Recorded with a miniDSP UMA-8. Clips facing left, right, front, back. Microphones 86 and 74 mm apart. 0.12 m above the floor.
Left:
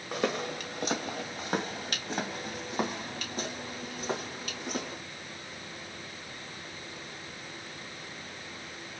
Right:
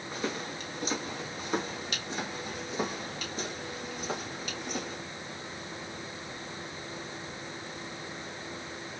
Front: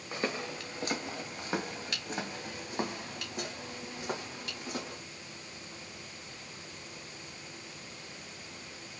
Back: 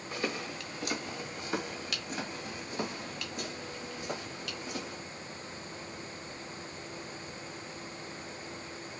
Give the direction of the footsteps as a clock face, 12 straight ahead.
10 o'clock.